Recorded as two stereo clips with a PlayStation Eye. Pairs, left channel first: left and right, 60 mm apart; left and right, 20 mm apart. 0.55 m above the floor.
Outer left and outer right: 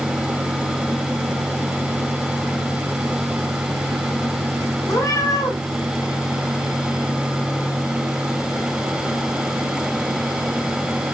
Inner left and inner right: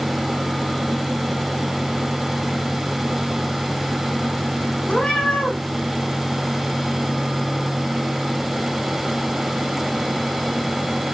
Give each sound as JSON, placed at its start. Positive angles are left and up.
{"t": 4.9, "sound": "a cat meowing", "side_deg": 85, "distance_m": 6.5}